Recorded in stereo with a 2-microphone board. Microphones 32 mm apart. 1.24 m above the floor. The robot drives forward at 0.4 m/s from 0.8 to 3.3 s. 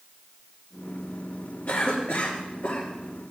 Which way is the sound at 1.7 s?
75° left (ahead or behind).